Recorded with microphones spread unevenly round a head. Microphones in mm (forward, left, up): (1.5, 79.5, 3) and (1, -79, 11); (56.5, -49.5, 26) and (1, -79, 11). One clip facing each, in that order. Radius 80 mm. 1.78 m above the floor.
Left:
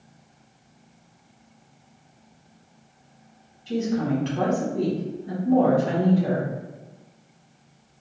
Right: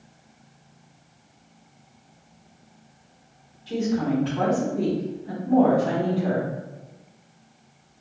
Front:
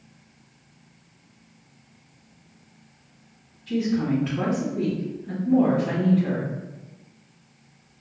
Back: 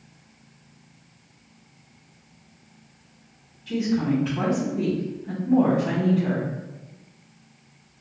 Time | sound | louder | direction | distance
3.7 | a woman speaking | even, even | 160° left | 1.1 m